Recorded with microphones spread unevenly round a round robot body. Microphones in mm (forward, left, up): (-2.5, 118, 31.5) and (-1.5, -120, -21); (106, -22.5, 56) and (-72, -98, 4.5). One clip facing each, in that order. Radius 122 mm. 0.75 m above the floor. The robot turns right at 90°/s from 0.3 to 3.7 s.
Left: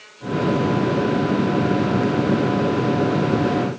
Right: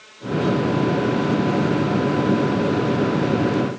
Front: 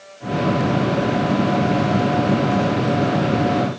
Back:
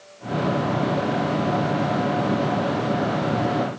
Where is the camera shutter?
No camera shutter in this recording.